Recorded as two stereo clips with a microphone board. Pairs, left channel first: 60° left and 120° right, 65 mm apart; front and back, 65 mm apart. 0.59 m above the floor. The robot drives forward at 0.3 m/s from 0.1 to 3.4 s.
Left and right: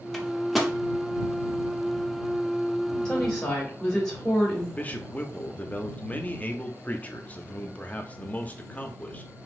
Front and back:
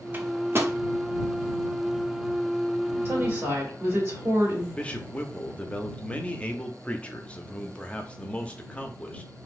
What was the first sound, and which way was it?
A microwave, 140° left.